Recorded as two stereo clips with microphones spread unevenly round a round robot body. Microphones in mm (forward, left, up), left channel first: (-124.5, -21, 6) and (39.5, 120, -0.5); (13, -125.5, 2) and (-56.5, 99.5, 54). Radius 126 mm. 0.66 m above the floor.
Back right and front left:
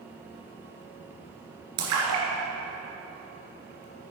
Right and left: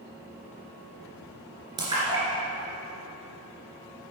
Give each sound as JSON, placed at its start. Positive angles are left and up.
{"t": 1.8, "sound": "a splash", "azimuth_deg": 35, "distance_m": 2.5}